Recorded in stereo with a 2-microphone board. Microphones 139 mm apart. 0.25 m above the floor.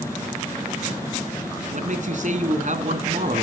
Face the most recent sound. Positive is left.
turn(degrees=-65)  # may be behind; listen again after turning